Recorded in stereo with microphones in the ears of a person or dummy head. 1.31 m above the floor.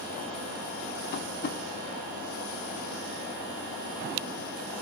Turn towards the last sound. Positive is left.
turn(degrees=55)  # may be behind; listen again after turning